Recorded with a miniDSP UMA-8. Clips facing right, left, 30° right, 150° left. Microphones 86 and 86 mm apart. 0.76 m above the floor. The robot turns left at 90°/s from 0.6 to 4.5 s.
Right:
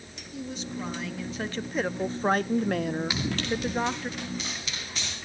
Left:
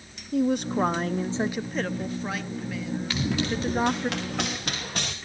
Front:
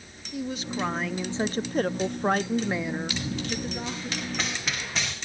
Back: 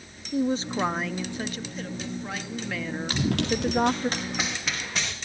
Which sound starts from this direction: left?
A woman speaking, at 0.3 s.